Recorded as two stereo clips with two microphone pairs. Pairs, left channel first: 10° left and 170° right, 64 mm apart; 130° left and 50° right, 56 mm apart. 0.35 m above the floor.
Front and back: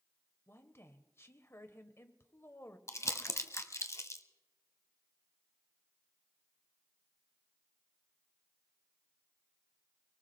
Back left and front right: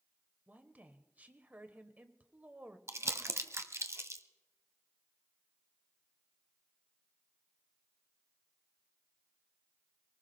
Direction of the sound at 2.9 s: 30° right.